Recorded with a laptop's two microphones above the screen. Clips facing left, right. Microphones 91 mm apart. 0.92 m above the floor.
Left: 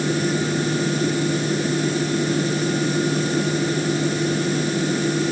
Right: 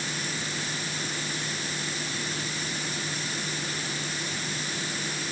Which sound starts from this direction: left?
A fan, at 0.0 s.